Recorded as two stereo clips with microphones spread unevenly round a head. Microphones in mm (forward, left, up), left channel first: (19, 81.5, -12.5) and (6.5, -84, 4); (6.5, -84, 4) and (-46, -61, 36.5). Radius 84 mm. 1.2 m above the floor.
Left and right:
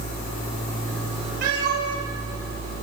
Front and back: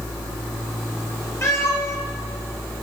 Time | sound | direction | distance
1.4 | a cat meowing | 75° right | 3 m